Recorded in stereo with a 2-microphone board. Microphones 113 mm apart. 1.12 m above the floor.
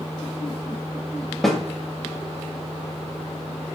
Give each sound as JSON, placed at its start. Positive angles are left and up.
{"t": 1.4, "sound": "a snare drum", "side_deg": 5, "distance_m": 0.6}